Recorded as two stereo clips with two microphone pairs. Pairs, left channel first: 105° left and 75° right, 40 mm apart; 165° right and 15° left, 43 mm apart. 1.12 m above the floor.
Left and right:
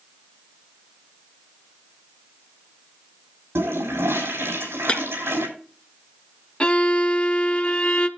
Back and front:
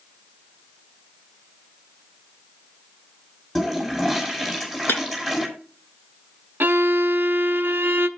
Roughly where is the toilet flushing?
Right.